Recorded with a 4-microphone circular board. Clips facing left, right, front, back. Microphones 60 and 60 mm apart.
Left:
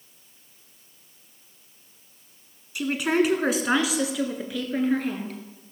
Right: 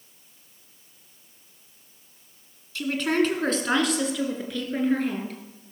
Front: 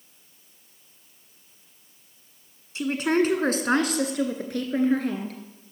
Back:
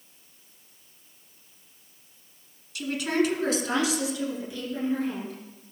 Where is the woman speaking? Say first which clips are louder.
Left 1 dB, front 3 dB; 30° left, 1.6 m; by 5.4 s straight ahead, 2.5 m.